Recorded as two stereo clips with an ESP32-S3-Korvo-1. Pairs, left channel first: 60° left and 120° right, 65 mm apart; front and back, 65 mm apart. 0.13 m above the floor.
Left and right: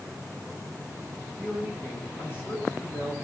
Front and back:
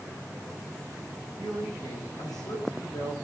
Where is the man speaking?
Straight ahead, 10 m; by 3.1 s 10° left, 9 m.